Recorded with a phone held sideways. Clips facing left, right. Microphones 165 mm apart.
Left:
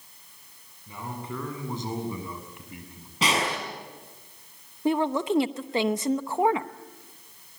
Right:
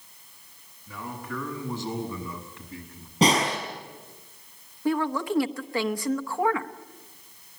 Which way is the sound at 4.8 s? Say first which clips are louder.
Left 2 dB; 20° left (ahead or behind).